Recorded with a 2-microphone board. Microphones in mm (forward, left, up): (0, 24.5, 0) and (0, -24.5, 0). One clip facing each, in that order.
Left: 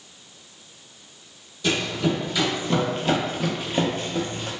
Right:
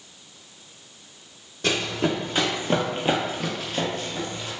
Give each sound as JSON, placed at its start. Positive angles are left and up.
{"t": 1.6, "sound": "running footsteps", "side_deg": -55, "distance_m": 1.1}